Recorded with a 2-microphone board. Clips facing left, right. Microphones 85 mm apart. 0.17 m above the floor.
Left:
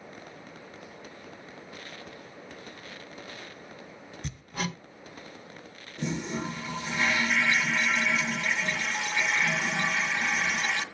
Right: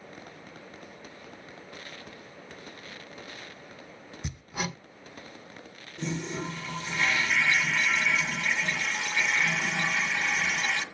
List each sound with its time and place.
4.2 s hammering: 10° right (ahead or behind), 1.0 m
6.0 s a toilet flushing: 10° left (ahead or behind), 1.7 m